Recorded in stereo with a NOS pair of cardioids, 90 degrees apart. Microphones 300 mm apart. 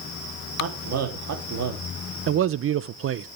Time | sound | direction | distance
0.6 | a man speaking | 50° right | 3.5 m
2.3 | a man speaking | 45° right | 0.7 m